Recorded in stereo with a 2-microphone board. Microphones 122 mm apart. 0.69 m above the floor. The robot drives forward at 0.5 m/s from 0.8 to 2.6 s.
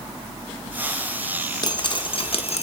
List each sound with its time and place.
1.6 s dripping: 35° left (ahead or behind), 0.9 m; by 2.6 s 65° left (ahead or behind), 0.6 m